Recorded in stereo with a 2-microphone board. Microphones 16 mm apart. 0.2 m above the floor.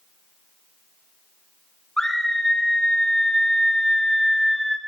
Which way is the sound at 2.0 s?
35° left (ahead or behind).